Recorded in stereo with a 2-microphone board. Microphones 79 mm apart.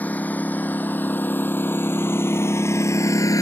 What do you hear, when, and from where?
0.0 s a lawn mower: 20° left (ahead or behind); by 3.4 s 45° left (ahead or behind)